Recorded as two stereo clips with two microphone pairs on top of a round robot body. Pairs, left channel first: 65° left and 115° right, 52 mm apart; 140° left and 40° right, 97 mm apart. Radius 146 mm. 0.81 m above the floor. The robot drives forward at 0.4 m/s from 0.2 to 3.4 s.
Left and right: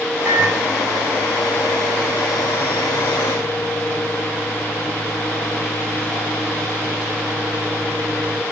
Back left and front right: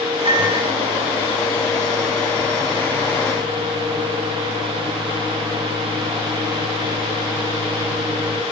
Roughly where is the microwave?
Right.